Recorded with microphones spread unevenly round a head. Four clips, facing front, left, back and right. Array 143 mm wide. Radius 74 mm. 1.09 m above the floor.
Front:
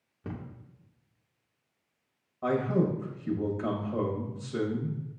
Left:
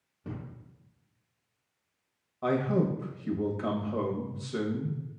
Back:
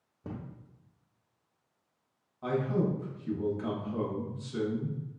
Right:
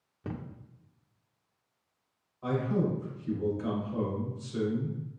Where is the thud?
95° right, 0.6 m.